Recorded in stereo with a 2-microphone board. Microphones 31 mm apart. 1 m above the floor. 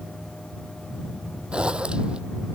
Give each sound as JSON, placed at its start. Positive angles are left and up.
{"t": 1.5, "sound": "a zipper", "side_deg": -35}